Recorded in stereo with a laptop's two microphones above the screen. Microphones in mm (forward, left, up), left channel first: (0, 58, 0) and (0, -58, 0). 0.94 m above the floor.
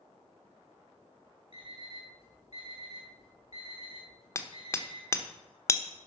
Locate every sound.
1.5 s an alarm clock: 65° left (ahead or behind), 5 m
4.3 s hammering: 25° left (ahead or behind), 1.1 m